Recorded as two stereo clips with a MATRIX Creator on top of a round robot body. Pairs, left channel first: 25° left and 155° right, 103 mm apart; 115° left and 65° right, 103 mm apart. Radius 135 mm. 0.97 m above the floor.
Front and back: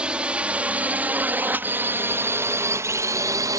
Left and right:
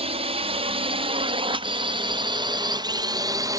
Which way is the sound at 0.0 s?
80° right.